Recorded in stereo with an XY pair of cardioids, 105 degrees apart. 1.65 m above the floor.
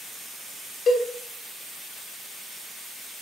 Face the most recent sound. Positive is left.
turn(degrees=55)